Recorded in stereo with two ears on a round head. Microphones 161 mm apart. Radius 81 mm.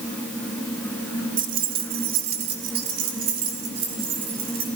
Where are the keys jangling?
50° right (ahead or behind), 1.2 m; by 4.7 s 60° right (ahead or behind), 6 m.